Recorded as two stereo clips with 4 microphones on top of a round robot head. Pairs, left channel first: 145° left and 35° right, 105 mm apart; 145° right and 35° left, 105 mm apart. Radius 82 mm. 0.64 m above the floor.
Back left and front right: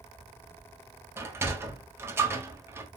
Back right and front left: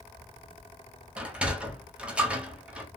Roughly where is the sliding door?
Ahead right.